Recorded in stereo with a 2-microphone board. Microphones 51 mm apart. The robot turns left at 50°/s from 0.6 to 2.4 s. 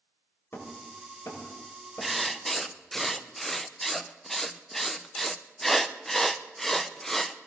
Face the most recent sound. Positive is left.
turn(degrees=5)  # may be behind; listen again after turning